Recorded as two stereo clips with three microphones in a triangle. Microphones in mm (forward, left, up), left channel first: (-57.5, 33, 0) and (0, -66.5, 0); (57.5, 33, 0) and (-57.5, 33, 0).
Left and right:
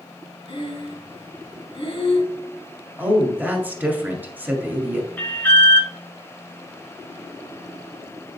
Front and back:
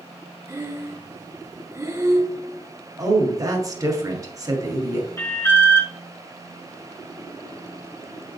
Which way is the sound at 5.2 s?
60° left.